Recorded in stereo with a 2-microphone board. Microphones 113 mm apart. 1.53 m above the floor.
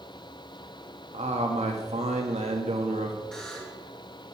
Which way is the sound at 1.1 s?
70° right (ahead or behind).